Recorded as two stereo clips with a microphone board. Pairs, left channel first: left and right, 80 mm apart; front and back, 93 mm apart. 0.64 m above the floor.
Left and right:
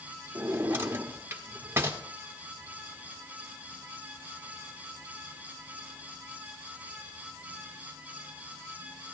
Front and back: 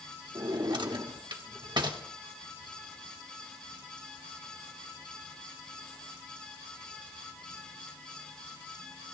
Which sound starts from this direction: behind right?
A drawer, at 0.3 s.